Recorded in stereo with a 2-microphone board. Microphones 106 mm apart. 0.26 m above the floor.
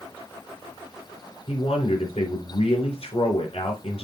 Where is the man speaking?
65° left (ahead or behind), 3.5 m.